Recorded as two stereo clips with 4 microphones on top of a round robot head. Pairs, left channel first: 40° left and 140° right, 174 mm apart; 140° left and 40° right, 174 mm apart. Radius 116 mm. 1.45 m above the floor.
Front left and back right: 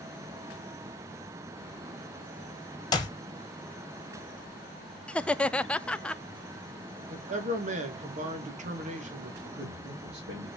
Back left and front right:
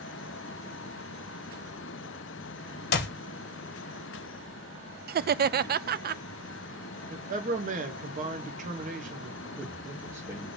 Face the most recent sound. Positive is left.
turn(degrees=-115)